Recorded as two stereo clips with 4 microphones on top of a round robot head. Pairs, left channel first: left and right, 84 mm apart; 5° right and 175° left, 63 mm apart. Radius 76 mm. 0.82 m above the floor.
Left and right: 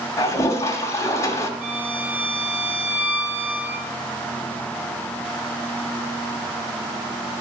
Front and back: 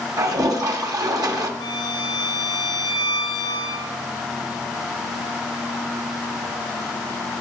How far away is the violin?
About 2.5 m.